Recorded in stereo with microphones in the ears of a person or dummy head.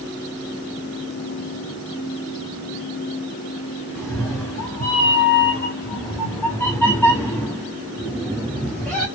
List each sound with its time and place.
4.0 s a cat meowing: 10° left (ahead or behind), 1.1 m